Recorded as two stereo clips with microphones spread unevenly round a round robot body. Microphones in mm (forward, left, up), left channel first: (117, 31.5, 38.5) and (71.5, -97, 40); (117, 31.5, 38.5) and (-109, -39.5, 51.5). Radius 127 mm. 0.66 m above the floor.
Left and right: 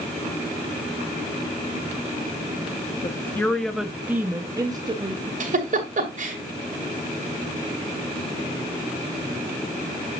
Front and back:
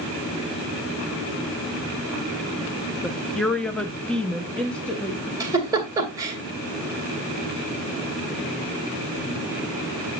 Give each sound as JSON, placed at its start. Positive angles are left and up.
{"t": 3.0, "sound": "a woman speaking", "azimuth_deg": 95, "distance_m": 0.8}
{"t": 5.4, "sound": "a giggle", "azimuth_deg": -85, "distance_m": 2.5}